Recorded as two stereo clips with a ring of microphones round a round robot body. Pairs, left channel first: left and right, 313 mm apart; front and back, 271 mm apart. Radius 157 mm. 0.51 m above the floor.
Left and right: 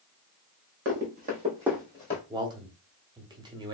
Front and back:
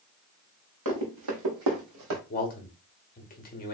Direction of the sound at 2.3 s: 25° right.